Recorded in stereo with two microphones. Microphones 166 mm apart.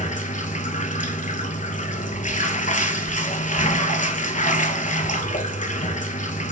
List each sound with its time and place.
0.0 s running water: 45° left (ahead or behind), 0.8 m